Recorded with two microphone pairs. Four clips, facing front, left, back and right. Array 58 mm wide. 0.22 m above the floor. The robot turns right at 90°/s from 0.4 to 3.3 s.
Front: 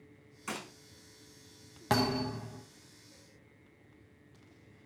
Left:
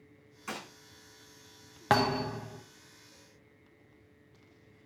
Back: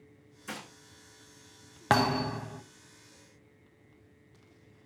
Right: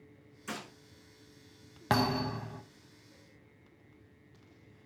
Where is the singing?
I don't hear singing.